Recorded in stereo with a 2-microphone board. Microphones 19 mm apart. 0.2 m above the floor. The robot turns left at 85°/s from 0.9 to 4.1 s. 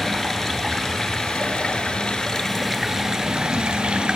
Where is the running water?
150° left, 0.9 m; by 4.2 s 125° right, 0.9 m.